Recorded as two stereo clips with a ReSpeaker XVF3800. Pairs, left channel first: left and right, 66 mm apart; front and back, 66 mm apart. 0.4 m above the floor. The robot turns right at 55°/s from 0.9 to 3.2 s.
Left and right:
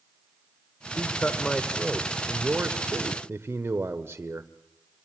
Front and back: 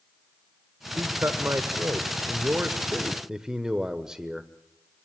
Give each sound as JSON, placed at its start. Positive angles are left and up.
{"t": 1.0, "sound": "a man speaking", "azimuth_deg": 130, "distance_m": 1.1}